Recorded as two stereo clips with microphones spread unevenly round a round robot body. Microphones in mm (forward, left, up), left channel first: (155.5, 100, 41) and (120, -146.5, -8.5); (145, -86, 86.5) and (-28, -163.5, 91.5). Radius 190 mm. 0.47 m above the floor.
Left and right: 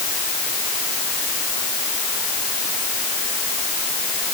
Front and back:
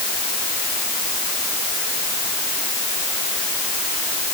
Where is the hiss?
No hiss in this recording.